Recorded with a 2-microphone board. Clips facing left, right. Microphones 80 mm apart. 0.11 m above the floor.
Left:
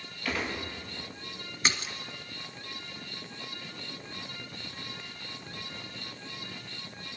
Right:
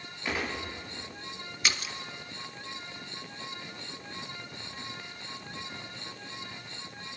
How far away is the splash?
About 1.2 m.